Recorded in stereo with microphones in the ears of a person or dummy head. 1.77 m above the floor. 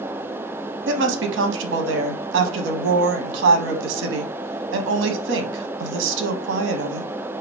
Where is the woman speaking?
70° right (ahead or behind), 1.1 m.